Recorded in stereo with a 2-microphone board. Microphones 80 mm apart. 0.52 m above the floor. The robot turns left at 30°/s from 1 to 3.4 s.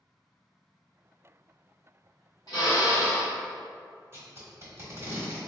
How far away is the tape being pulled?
About 1.2 m.